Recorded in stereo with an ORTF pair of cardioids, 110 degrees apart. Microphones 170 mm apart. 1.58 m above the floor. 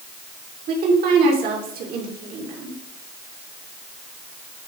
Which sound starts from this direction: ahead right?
A woman speaking, at 0.7 s.